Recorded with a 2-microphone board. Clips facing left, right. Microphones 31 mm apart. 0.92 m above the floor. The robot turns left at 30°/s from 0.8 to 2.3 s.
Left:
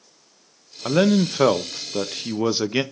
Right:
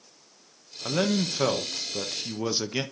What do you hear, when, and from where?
0.8 s a man speaking: 25° left (ahead or behind), 0.5 m